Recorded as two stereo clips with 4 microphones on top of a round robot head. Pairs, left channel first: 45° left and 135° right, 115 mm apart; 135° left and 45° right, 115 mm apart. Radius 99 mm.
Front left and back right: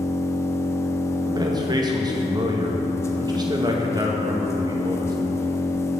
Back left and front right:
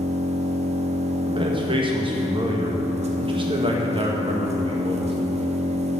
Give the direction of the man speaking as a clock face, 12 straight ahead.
3 o'clock.